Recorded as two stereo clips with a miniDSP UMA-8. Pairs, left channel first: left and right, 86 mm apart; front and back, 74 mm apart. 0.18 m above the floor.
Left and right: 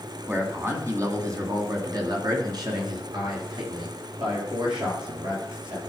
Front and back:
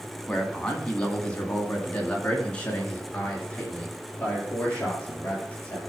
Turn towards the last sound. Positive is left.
turn(degrees=-70)